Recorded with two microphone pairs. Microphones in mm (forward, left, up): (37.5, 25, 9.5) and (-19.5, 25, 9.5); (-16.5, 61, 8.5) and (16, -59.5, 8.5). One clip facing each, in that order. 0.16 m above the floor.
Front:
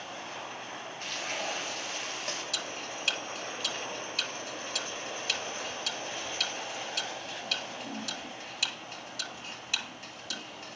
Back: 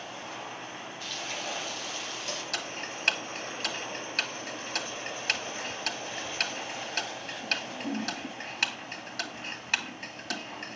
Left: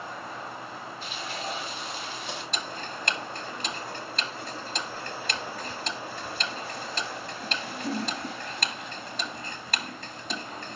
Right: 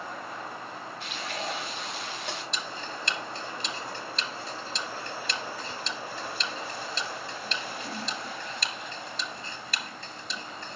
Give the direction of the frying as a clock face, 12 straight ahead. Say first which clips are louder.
Front 2 dB, right 1 dB; 2 o'clock.